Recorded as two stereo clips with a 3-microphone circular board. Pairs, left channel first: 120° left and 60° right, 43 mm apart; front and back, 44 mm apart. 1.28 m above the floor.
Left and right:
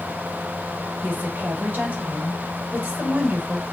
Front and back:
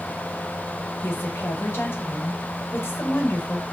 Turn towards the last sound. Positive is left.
turn(degrees=-20)